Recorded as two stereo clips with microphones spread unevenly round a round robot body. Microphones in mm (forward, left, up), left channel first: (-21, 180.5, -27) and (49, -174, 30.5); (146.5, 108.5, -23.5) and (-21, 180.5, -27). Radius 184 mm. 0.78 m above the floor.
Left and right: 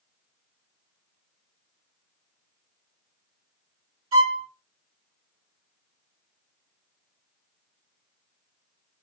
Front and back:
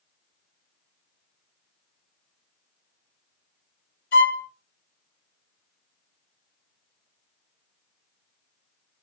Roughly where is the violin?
Ahead.